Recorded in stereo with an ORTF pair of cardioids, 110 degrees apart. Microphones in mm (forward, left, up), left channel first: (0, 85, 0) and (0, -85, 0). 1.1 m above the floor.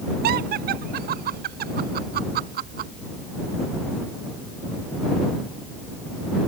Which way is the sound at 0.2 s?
65° right.